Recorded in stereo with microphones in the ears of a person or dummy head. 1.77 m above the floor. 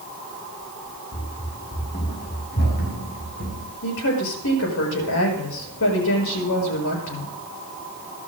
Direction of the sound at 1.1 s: 35° left (ahead or behind).